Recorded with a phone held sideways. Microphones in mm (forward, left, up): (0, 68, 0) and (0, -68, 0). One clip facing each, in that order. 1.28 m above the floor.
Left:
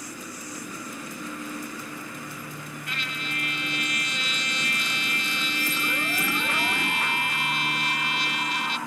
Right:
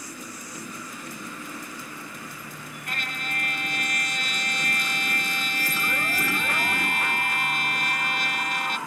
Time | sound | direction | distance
0.0 | a machine running | 25° left (ahead or behind) | ?
2.9 | a trumpet | 50° right (ahead or behind) | ?